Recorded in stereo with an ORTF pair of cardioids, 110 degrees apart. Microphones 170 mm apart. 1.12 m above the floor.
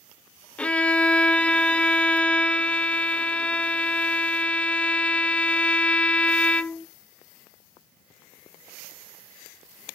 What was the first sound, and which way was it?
A violin, 5° left.